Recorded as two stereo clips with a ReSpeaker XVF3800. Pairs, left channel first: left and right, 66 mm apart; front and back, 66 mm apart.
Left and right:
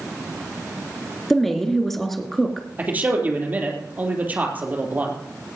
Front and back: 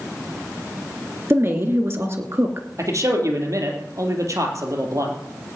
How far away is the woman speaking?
About 1.9 m.